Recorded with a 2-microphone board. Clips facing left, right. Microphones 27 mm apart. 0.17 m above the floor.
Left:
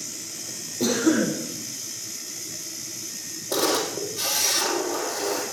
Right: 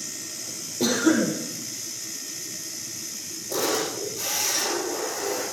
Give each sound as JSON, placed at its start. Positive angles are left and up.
{"t": 0.8, "sound": "a cough", "side_deg": -20, "distance_m": 6.5}
{"t": 3.5, "sound": "a camera shutter", "side_deg": 70, "distance_m": 4.5}